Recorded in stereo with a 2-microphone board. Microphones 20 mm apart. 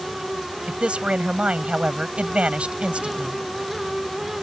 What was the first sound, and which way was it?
A man speaking, 85° right.